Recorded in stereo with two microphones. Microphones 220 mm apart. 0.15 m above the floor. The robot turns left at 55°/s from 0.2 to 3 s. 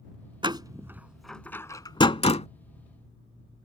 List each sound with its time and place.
0.4 s a door slam: 25° right (ahead or behind); by 2.5 s 30° left (ahead or behind)